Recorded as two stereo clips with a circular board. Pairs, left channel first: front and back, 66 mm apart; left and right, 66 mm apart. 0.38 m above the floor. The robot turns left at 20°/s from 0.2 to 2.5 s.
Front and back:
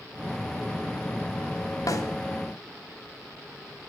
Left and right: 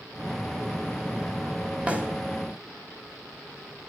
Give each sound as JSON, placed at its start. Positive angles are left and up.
{"t": 1.9, "sound": "a snare drum", "azimuth_deg": -20, "distance_m": 1.7}